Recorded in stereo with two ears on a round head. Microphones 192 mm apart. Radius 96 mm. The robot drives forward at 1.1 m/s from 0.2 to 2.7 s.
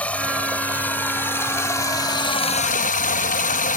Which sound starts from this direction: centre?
Running water, at 0.0 s.